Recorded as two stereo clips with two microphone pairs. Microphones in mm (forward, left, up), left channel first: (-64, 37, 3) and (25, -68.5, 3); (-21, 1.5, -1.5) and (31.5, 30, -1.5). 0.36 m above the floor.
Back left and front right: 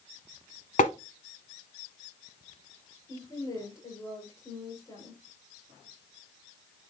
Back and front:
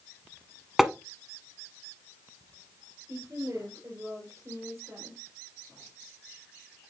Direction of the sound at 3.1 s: 65° left.